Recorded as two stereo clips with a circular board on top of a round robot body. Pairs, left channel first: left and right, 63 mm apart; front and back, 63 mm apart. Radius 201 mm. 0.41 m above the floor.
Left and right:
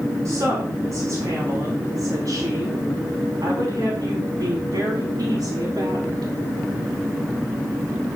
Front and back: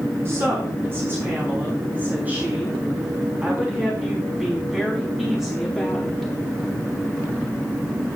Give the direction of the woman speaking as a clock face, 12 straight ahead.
4 o'clock.